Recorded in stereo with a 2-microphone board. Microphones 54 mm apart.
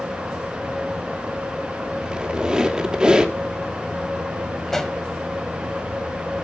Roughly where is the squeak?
Centre.